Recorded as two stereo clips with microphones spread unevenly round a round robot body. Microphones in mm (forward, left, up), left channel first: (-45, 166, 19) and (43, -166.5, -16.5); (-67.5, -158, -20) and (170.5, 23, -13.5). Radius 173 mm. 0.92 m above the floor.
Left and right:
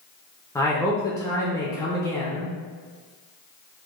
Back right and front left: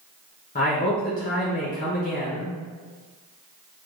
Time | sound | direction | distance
0.6 | a man speaking | 170° right | 0.5 m